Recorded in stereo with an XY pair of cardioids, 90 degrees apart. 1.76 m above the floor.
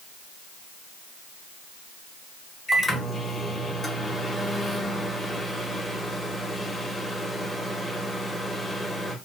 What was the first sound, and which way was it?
A microwave, 5° left.